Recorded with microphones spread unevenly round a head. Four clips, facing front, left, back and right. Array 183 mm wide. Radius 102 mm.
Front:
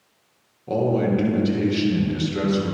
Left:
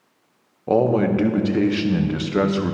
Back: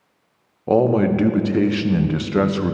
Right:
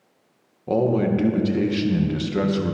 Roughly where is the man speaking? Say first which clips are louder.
Left 2 dB, back 5 dB; behind.